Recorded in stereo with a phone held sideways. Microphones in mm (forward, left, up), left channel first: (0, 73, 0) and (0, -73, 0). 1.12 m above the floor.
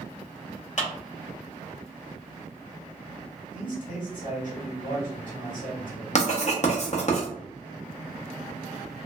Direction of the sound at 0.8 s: 50° left (ahead or behind).